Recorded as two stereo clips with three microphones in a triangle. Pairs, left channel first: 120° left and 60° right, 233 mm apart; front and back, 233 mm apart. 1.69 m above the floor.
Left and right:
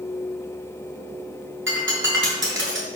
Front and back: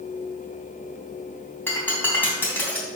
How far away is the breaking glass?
About 3 m.